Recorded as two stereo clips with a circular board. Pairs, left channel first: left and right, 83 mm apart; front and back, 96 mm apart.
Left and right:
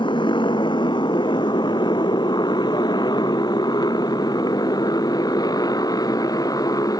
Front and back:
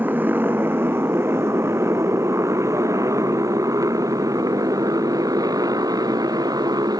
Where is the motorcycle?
110° left; by 7.0 s 135° left.